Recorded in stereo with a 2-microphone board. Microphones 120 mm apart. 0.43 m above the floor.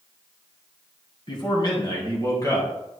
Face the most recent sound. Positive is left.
turn(degrees=30)  # may be behind; listen again after turning